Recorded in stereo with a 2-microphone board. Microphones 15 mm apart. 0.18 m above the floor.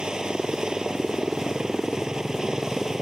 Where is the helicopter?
55° right (ahead or behind); by 3.0 s 45° right (ahead or behind).